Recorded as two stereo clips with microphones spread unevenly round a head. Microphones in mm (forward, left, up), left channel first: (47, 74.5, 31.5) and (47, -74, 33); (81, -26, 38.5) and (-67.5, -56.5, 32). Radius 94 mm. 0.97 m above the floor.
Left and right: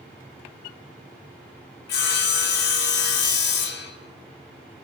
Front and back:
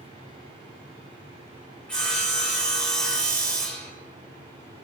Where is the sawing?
95° left, 0.7 m.